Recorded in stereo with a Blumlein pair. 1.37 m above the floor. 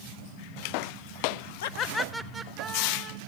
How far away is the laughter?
About 0.5 m.